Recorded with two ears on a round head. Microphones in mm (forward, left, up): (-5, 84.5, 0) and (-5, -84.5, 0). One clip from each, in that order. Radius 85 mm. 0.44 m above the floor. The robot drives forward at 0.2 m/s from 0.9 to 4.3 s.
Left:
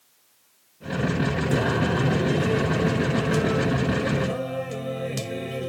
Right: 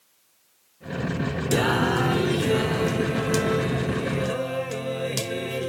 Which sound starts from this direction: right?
Singing, at 1.5 s.